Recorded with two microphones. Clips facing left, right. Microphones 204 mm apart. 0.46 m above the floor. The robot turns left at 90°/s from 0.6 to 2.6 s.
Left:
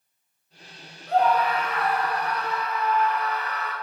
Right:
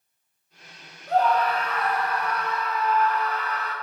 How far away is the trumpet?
I don't hear a trumpet.